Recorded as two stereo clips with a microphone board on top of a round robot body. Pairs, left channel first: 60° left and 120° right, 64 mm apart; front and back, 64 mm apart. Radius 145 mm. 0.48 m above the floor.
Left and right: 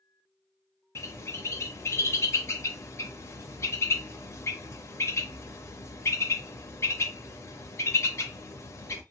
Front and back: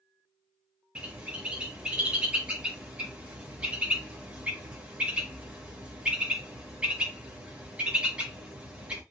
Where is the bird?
110° left, 0.6 m.